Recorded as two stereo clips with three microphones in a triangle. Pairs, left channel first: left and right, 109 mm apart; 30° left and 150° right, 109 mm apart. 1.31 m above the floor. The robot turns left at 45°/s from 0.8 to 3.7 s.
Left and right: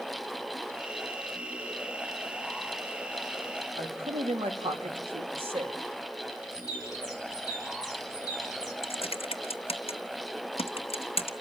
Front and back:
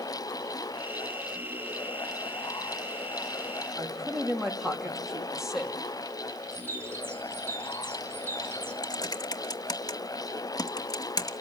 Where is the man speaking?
65° right, 2.5 m.